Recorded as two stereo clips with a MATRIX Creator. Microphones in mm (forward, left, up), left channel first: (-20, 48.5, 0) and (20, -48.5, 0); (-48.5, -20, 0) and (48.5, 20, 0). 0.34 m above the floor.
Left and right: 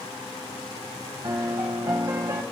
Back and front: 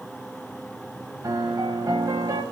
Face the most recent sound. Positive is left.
turn(degrees=-20)